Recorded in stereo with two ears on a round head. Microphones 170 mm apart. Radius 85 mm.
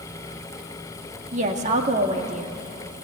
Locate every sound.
1.3 s a woman speaking: 35° right (ahead or behind), 1.9 m